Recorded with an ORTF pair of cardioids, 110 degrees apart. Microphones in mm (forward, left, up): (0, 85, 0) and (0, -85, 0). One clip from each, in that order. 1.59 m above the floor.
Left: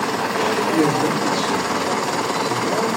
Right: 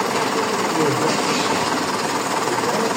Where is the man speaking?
60° left, 7 m; by 2.9 s 70° left, 7.5 m.